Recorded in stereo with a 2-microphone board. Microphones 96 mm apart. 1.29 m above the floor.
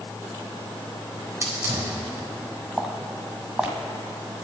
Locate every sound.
1.2 s a hiss: 30° right (ahead or behind), 4 m
2.8 s footsteps: 10° right (ahead or behind), 2 m